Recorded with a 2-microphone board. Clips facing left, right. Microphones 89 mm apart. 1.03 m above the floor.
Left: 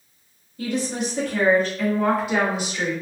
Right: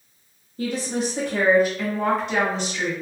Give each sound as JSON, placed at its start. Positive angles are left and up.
{"t": 0.6, "sound": "a woman speaking", "side_deg": -35, "distance_m": 0.8}